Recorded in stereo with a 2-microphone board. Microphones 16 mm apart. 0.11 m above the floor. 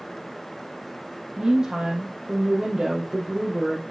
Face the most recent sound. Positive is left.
turn(degrees=-55)  # may be behind; listen again after turning